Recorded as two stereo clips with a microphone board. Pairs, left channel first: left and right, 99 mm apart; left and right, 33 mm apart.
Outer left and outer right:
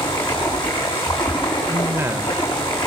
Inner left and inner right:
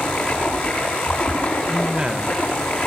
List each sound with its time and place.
0.0 s running water: 55° left (ahead or behind), 6.5 m
1.7 s a man speaking: 25° right (ahead or behind), 0.9 m